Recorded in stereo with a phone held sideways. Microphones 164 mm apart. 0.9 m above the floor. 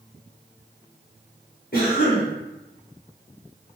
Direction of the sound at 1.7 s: 60° left (ahead or behind).